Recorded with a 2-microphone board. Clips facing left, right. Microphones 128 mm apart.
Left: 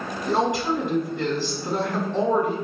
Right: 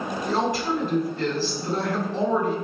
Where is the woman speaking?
20° left (ahead or behind), 1.7 m.